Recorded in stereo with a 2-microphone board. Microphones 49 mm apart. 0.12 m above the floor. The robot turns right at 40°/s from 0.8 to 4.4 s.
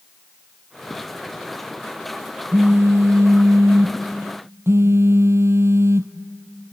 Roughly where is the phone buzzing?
Behind right.